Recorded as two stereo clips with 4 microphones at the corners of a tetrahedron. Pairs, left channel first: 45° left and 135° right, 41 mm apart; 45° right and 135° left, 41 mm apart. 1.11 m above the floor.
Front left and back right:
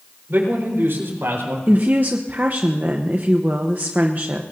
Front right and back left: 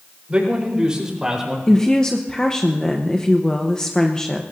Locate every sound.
0.3 s a man speaking: 165° right, 4 m; by 1.6 s 145° right, 4.5 m
1.7 s a woman speaking: 110° right, 0.9 m